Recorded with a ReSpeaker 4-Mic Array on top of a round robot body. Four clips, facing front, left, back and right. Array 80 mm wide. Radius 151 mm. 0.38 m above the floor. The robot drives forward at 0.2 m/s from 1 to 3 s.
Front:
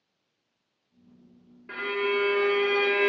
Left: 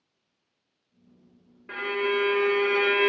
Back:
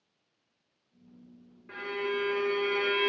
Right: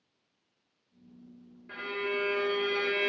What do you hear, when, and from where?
1.7 s a violin: 70° left, 1.7 m; by 3.1 s 80° left, 1.6 m